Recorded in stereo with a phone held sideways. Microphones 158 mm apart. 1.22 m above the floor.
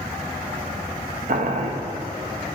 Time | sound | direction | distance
1.3 | boiling | 65° right (ahead or behind) | 0.9 m